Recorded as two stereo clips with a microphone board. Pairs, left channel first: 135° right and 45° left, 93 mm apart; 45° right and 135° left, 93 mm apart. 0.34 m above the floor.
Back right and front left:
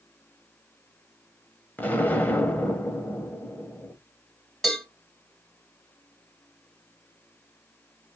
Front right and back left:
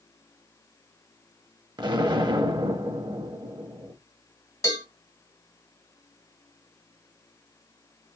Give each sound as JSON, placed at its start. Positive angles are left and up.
{"t": 1.8, "sound": "an explosion", "azimuth_deg": 155, "distance_m": 0.6}
{"t": 4.6, "sound": "a cowbell", "azimuth_deg": -50, "distance_m": 1.8}